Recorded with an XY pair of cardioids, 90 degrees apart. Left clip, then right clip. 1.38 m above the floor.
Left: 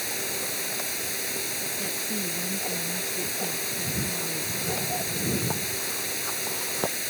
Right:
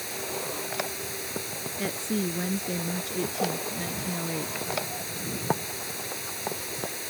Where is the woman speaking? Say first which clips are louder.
Even; 45° right.